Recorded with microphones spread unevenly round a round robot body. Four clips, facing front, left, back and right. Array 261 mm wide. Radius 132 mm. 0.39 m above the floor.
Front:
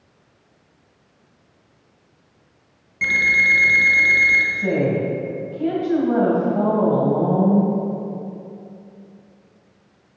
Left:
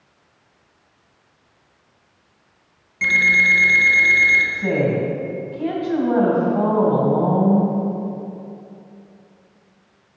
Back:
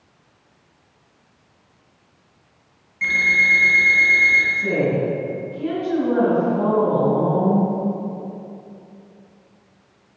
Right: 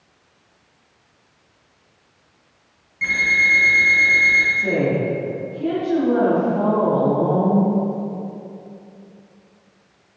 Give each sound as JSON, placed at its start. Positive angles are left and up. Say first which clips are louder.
{"t": 3.0, "sound": "an alarm clock", "louder": "left 2 dB, even", "azimuth_deg": 25, "distance_m": 1.0}
{"t": 4.5, "sound": "a woman speaking", "louder": "left 1 dB, front 1 dB", "azimuth_deg": 45, "distance_m": 3.0}